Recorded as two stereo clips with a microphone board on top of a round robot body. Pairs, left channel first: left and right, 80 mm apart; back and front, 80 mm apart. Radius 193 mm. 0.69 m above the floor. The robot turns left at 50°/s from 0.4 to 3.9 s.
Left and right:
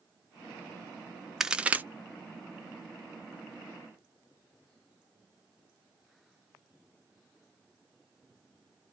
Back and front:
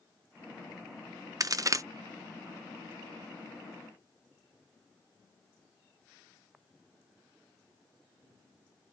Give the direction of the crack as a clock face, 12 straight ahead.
12 o'clock.